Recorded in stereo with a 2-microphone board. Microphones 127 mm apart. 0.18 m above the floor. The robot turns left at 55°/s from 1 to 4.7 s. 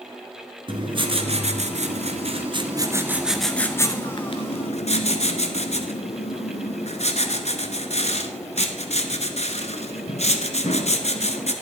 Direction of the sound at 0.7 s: 50° right.